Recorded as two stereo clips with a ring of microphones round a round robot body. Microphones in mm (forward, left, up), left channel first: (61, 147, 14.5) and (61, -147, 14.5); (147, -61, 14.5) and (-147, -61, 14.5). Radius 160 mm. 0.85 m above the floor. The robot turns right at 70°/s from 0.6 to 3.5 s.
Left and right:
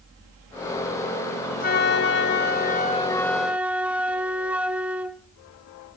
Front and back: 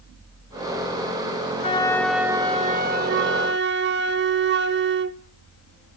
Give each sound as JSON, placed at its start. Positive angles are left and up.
{"t": 1.6, "sound": "a flute", "azimuth_deg": 55, "distance_m": 0.7}